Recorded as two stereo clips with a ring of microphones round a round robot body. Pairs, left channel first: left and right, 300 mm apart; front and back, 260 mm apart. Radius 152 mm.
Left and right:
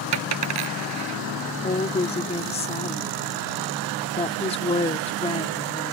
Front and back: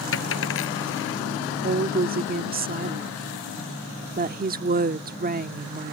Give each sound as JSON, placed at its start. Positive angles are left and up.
{"t": 0.1, "sound": "a dropped coin", "azimuth_deg": -50}
{"t": 1.6, "sound": "a woman speaking", "azimuth_deg": 150}